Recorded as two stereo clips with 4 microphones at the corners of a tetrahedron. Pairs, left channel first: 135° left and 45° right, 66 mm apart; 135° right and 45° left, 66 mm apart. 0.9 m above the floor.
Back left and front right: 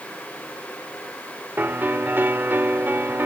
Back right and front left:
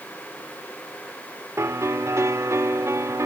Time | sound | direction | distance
1.6 | a piano | 10° left | ?